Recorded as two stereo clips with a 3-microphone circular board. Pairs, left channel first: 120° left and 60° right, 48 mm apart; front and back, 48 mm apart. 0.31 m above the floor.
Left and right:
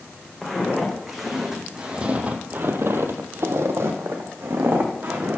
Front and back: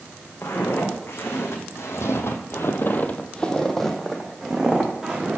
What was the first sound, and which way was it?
Footsteps, 30° left.